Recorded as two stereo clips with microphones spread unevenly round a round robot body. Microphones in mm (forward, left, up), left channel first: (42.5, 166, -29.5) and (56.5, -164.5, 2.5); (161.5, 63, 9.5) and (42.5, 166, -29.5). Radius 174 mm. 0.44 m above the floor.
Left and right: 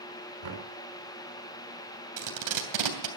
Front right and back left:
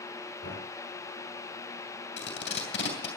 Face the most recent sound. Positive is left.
turn(degrees=-60)